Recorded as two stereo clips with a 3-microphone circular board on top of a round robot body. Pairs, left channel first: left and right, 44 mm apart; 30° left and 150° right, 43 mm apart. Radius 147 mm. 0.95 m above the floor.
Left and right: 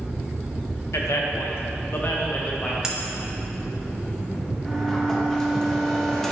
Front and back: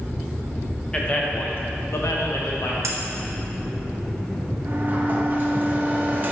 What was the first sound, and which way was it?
A man speaking, 100° left.